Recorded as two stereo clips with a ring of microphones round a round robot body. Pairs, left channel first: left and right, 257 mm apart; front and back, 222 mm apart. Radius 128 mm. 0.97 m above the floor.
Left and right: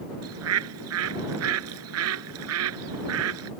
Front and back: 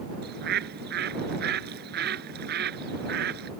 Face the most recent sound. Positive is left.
turn(degrees=-125)